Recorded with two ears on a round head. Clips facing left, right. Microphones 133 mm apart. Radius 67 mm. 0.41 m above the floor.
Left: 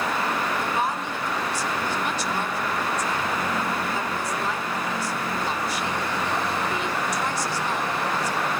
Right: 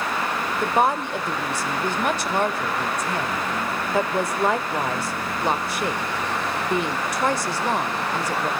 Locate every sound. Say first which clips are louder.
0.6 s a woman speaking: right 5 dB; 50° right (ahead or behind), 1.2 m